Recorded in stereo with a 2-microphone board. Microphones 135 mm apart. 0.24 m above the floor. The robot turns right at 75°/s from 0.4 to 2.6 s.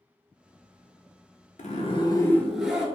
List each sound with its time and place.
1.6 s a zipper: 110° left, 0.5 m; by 2.9 s 175° right, 0.5 m